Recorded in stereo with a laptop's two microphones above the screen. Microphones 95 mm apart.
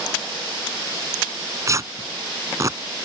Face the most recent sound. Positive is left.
turn(degrees=-35)  # may be behind; listen again after turning